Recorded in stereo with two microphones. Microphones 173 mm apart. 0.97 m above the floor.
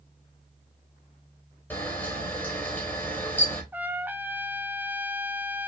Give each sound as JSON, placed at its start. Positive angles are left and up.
{"t": 1.7, "sound": "a camera shutter", "side_deg": 10, "distance_m": 2.5}
{"t": 3.7, "sound": "a trumpet", "side_deg": -10, "distance_m": 0.6}